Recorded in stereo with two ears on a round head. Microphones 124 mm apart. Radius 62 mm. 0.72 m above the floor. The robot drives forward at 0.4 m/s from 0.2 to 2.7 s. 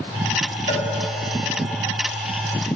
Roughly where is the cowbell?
Left.